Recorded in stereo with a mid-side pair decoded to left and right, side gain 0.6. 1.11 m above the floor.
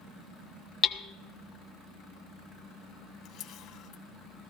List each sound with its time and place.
0.8 s hammering: 45° left, 0.9 m
3.2 s a camera shutter: 60° left, 2 m